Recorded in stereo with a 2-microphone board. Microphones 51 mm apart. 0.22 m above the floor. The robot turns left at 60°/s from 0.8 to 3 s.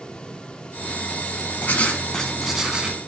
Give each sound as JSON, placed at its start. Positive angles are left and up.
{"t": 1.6, "sound": "writing", "azimuth_deg": 50, "distance_m": 0.8}